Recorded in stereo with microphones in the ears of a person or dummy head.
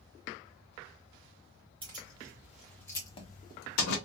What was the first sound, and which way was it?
Keys jangling, 30° right (ahead or behind).